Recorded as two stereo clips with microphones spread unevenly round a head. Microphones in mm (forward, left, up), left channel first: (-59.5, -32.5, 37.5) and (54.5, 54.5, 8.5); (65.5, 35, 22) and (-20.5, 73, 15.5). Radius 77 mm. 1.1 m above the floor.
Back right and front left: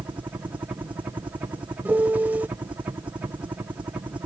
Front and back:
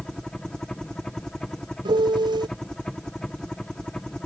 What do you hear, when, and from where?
0.0 s a helicopter: 55° left
1.9 s a piano: 120° left